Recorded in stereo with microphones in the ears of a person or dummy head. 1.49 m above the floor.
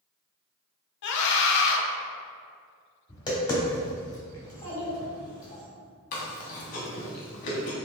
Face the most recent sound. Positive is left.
turn(degrees=45)  # may be behind; listen again after turning